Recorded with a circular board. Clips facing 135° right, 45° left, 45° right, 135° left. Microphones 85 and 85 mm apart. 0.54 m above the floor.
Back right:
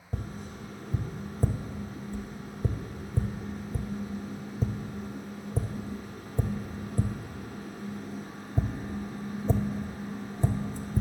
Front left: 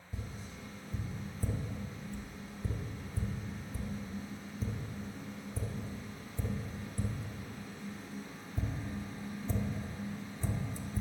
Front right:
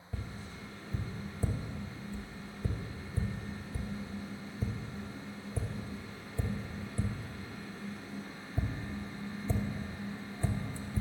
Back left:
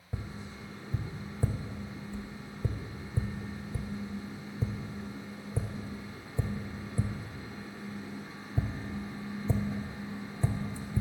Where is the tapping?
155° right, 0.6 m.